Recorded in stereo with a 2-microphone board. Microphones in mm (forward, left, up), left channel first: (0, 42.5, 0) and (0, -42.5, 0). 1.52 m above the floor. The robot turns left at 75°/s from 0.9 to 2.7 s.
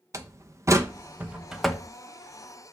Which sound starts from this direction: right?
A door slam, at 0.1 s.